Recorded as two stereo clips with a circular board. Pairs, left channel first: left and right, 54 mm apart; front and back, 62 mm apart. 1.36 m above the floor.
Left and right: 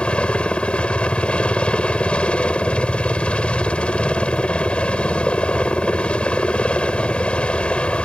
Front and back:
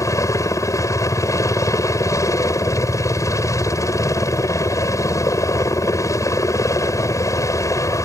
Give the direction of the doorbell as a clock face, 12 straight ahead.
No doorbell in this recording.